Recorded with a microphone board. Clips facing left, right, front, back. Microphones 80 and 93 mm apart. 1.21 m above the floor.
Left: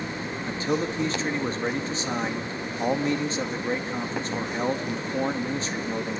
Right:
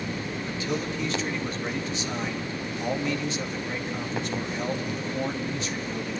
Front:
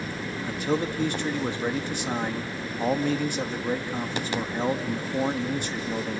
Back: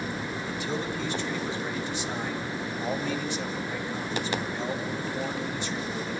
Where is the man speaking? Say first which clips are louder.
Left 5 dB, front 7 dB; 35° left, 2.0 m.